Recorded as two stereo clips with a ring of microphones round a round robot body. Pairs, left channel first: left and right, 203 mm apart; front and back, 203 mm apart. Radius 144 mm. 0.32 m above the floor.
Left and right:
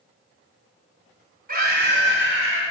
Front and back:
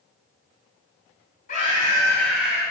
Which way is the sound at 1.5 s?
55° right.